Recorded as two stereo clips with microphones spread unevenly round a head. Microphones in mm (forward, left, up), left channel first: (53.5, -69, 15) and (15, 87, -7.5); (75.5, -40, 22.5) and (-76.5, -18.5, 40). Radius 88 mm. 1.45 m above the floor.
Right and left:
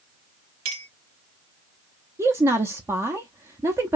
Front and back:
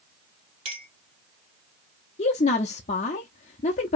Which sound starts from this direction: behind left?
A clink, at 0.7 s.